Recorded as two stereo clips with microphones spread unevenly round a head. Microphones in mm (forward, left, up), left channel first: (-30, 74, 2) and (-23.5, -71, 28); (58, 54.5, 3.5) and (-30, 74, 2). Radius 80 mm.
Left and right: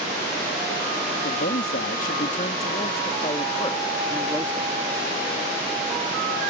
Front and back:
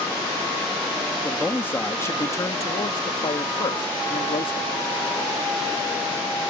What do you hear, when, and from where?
1.2 s a man speaking: 60° left; by 4.7 s 10° left